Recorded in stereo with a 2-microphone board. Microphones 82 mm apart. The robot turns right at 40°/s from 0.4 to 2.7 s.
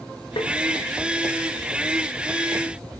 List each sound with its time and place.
0.4 s tapping: 70° left (ahead or behind), 0.7 m